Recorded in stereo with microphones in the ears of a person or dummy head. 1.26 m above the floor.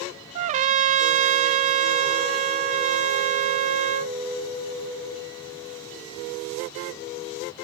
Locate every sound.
0.3 s a trumpet: 40° right (ahead or behind), 0.5 m